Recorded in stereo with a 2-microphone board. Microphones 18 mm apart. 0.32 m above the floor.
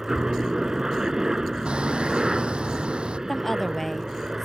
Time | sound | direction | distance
0.0 | a helicopter | 30° right (ahead or behind) | ?
1.6 | hammering | 70° right (ahead or behind) | ?
3.3 | a woman speaking | 10° left (ahead or behind) | ?